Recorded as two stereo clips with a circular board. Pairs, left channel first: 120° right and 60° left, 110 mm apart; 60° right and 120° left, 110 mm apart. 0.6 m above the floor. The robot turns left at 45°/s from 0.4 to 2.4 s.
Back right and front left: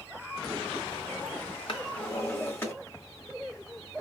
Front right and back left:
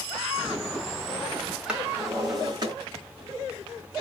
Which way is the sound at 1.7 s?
160° right.